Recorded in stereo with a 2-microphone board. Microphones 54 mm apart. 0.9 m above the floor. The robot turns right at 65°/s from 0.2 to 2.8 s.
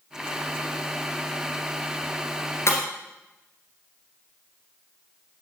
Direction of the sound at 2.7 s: 55° left (ahead or behind).